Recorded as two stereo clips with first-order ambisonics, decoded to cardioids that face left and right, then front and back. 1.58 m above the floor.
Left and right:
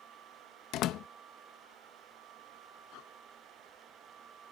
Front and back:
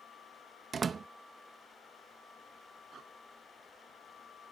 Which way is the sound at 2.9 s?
115° left.